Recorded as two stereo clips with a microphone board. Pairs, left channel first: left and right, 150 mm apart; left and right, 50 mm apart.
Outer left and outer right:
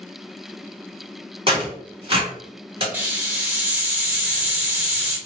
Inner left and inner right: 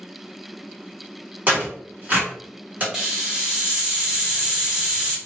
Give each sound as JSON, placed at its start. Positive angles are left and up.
{"t": 1.5, "sound": "tearing paper", "side_deg": -35, "distance_m": 1.7}
{"t": 2.9, "sound": "a hiss", "side_deg": -10, "distance_m": 0.9}